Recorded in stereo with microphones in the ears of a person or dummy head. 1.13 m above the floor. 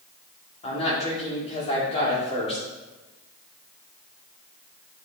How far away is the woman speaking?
About 2 m.